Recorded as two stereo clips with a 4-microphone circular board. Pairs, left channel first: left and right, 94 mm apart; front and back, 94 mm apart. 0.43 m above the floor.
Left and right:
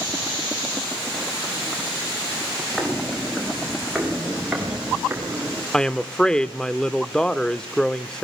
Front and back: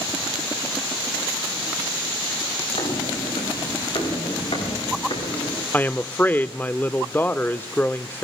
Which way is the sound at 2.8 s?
5° left.